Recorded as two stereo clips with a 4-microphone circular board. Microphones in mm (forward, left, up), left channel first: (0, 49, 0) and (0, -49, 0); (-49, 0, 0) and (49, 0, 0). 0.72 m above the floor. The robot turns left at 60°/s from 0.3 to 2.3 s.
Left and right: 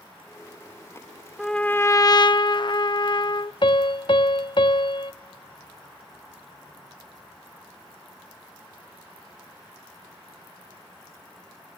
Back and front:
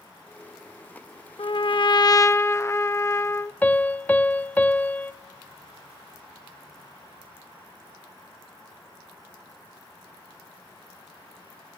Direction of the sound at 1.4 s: 175° left.